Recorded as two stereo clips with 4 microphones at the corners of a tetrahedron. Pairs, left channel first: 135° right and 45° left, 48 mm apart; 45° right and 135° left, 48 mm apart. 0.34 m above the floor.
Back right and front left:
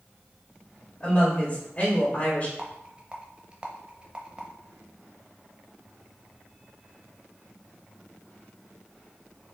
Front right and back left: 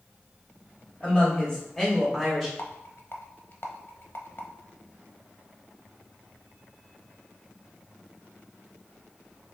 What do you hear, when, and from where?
1.0 s a woman speaking: 85° right, 1.7 m; by 2.5 s 140° right, 1.6 m
2.6 s a rattle: 15° right, 0.6 m